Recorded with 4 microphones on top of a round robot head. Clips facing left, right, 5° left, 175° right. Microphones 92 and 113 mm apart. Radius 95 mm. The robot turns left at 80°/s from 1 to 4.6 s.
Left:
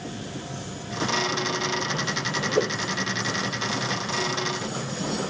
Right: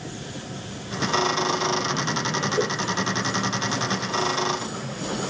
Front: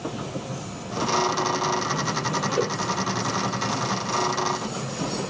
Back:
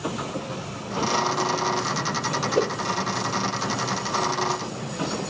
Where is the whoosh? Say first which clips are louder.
Left 2 dB, back 3 dB; 130° left, 0.6 m; by 2.7 s 115° left, 0.6 m.